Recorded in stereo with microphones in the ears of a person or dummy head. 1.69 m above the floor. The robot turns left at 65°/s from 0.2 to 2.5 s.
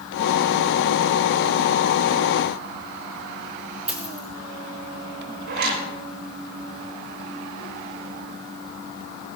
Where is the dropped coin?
5° right (ahead or behind), 2.5 m.